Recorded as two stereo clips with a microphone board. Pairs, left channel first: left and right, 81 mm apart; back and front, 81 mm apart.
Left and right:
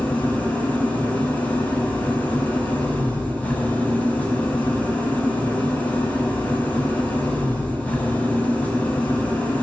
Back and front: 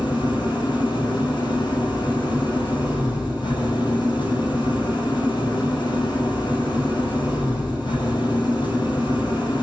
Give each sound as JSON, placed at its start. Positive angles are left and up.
{"t": 0.0, "sound": "an engine running", "azimuth_deg": 160, "distance_m": 6.5}